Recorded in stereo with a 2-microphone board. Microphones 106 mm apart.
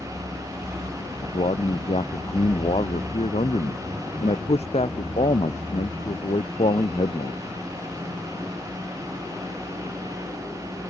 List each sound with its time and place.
1.2 s a man speaking: 80° left; by 7.4 s 85° left